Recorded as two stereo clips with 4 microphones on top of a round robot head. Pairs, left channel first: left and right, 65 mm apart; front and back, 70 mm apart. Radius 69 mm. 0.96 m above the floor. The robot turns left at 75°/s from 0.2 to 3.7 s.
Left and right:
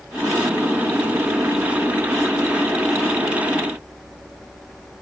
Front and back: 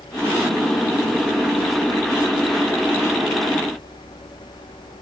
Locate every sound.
Only background noise.